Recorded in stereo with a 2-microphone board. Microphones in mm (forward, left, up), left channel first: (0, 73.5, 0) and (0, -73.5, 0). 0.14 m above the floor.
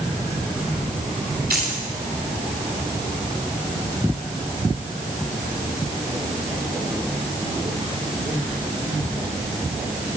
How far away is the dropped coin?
About 6.5 m.